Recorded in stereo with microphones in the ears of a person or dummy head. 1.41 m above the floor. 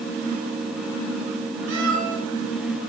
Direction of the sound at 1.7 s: 80° right.